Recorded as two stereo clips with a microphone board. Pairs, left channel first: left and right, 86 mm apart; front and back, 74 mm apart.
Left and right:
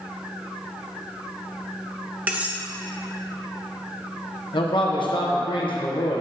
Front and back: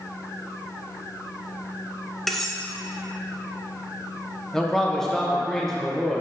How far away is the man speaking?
About 1.1 m.